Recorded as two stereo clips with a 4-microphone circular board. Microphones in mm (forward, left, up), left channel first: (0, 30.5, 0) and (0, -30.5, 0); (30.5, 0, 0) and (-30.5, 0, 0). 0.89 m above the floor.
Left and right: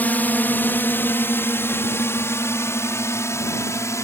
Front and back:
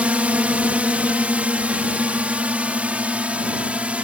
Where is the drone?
130° left; by 4.0 s 115° left.